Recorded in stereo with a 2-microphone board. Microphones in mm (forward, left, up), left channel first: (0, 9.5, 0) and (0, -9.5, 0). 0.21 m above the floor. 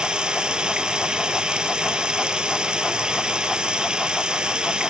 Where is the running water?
55° right (ahead or behind), 0.7 m.